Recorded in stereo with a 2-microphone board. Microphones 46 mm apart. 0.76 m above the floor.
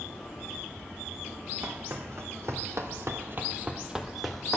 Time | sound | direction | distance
1.6 | running footsteps | 60° right (ahead or behind) | 3 m